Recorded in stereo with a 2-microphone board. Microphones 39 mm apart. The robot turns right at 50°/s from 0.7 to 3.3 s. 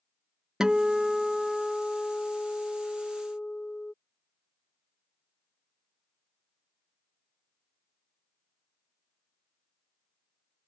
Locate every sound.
0.6 s a guitar: 30° right; by 3.9 s 100° left